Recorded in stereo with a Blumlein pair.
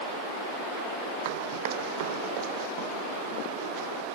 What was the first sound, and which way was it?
Running footsteps, 50° right.